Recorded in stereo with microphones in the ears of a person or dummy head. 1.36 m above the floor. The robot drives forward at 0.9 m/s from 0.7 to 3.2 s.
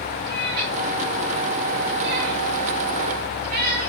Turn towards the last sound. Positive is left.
turn(degrees=-50)  # may be behind; listen again after turning